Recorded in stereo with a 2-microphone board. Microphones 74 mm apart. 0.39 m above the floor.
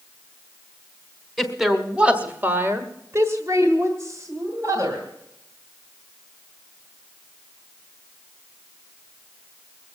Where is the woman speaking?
Centre (ahead or behind), 1.3 m; by 5.1 s 45° right (ahead or behind), 3 m.